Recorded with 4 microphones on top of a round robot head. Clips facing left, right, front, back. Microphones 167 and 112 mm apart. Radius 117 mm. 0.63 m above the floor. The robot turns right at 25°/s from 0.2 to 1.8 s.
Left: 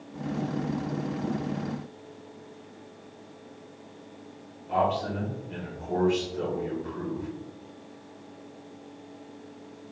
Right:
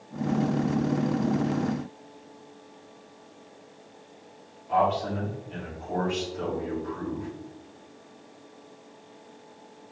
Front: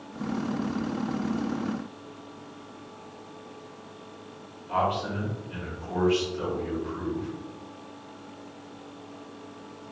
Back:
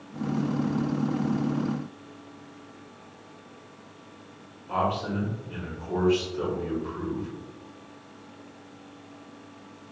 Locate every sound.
4.7 s a man speaking: 130° left, 2 m